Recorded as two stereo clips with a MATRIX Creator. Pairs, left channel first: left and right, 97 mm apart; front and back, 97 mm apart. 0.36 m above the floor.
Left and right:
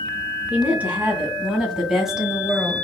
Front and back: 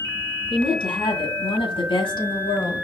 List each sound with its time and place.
0.5 s a woman speaking: 15° right, 2 m; by 2.8 s straight ahead, 1.3 m